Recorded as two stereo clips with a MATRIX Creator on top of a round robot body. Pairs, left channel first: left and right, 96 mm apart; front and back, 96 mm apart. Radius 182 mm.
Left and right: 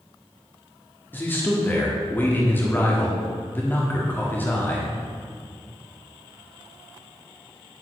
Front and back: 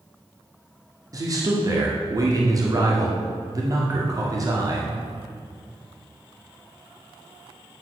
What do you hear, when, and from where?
1.1 s a man speaking: 150° left, 1.7 m